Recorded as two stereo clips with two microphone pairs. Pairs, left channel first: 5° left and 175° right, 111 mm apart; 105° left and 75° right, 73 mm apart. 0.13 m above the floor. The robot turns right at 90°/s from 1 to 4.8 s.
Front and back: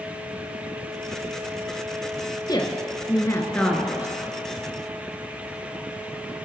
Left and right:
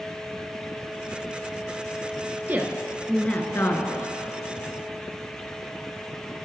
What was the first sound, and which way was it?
A woman speaking, 25° right.